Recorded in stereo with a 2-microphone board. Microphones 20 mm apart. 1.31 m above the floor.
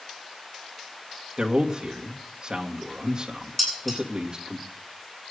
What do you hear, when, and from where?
1.4 s a man speaking: 40° right (ahead or behind), 2 m
3.6 s dishes clattering: 10° left (ahead or behind), 9 m